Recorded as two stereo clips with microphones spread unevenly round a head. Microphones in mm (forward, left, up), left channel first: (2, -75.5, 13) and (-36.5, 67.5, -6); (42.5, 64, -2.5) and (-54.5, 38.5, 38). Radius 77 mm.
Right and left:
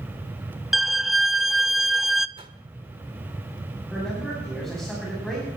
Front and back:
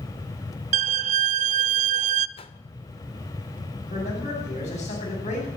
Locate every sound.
0.7 s a violin: 165° right, 0.5 m
2.4 s a whoosh: 50° left, 1.6 m
3.9 s a man speaking: 15° left, 10 m